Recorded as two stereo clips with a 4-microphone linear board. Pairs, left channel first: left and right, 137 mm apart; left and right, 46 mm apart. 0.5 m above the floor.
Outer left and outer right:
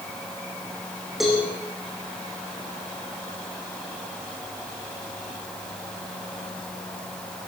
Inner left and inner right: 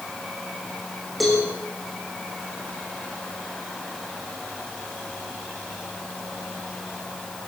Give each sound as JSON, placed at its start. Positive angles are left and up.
{"t": 1.2, "sound": "a cowbell", "side_deg": 0, "distance_m": 8.0}